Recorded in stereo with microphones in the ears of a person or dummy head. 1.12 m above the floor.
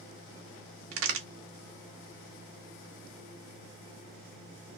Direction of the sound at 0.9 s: 75° right (ahead or behind).